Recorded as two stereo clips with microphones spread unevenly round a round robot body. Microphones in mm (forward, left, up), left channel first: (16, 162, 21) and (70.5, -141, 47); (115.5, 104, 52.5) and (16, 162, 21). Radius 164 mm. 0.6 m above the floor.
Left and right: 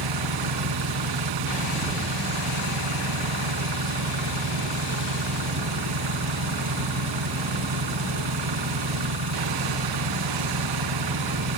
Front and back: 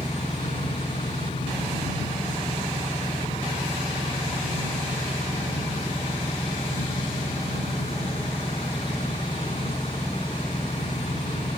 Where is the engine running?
100° right.